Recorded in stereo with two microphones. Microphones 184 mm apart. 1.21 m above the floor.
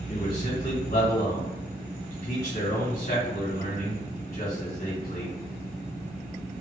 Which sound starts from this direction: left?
A man speaking, at 0.1 s.